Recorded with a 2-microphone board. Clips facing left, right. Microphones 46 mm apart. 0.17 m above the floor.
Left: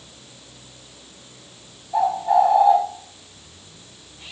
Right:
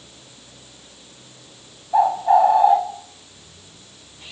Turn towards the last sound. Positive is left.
turn(degrees=-25)  # may be behind; listen again after turning